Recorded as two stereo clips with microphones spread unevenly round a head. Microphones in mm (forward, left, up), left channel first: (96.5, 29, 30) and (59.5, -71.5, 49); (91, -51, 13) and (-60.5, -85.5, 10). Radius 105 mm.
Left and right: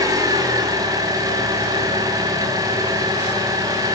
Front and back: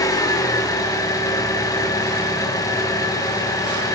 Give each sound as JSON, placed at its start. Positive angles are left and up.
{"t": 0.0, "sound": "an engine running", "azimuth_deg": -55, "distance_m": 5.5}